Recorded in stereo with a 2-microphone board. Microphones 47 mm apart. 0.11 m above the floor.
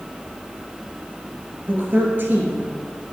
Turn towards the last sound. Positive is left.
turn(degrees=-45)  # may be behind; listen again after turning